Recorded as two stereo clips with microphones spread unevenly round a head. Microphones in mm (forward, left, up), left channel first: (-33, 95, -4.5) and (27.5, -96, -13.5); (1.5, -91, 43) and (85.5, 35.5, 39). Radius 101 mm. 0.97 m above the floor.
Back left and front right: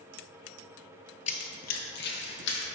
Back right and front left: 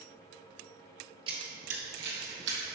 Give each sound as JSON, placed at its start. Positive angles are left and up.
{"t": 1.3, "sound": "running footsteps", "azimuth_deg": 105, "distance_m": 1.1}